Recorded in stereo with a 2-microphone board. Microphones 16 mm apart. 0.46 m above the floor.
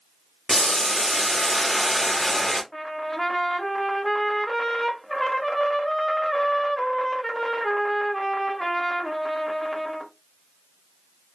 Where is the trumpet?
30° left (ahead or behind), 0.6 m.